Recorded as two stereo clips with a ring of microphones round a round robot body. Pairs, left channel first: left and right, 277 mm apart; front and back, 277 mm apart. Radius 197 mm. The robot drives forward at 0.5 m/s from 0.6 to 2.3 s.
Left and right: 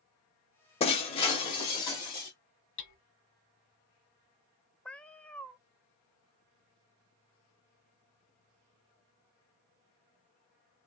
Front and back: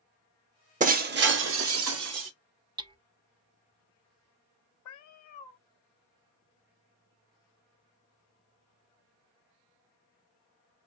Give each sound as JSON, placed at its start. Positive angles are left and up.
{"t": 0.8, "sound": "breaking glass", "azimuth_deg": 140, "distance_m": 0.7}
{"t": 2.8, "sound": "hammering", "azimuth_deg": 110, "distance_m": 0.7}
{"t": 4.8, "sound": "a cat meowing", "azimuth_deg": 5, "distance_m": 0.5}